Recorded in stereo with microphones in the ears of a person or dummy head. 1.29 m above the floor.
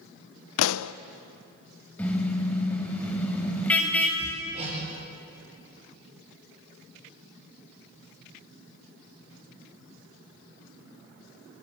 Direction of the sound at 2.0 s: 10° left (ahead or behind).